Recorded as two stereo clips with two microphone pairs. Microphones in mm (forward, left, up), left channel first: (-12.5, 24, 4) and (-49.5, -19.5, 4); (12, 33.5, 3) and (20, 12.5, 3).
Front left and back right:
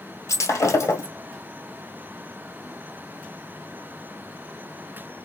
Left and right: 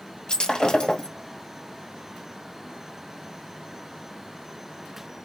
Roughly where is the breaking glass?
Left.